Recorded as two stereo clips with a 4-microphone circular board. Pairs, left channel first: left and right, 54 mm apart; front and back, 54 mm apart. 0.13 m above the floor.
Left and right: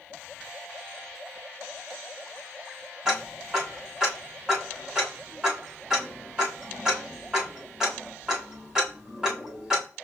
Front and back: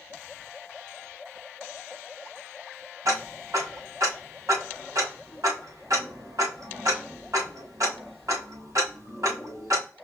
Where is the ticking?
170° right, 3.5 m.